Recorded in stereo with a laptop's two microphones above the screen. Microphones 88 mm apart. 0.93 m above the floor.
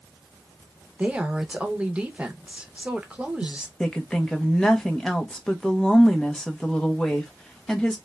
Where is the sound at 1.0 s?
15° right (ahead or behind), 0.6 m.